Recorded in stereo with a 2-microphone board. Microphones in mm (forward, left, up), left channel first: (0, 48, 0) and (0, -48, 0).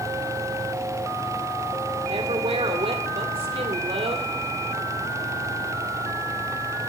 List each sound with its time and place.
2.1 s a woman speaking: 75° right (ahead or behind), 3 m